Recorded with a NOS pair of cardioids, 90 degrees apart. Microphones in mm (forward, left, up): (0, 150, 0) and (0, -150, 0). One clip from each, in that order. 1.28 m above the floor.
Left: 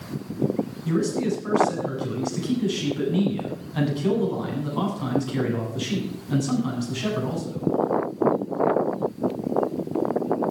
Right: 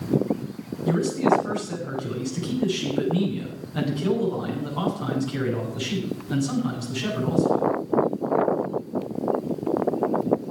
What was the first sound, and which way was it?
A man speaking, 10° left.